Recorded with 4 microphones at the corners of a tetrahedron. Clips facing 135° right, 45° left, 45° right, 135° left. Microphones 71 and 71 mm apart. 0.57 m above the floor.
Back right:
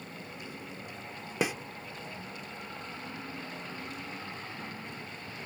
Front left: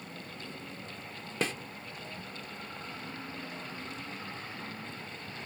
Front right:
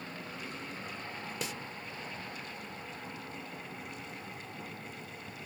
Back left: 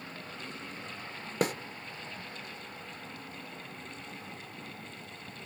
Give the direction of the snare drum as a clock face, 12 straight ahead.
7 o'clock.